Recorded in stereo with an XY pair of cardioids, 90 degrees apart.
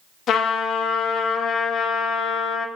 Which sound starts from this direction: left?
A trumpet, at 0.3 s.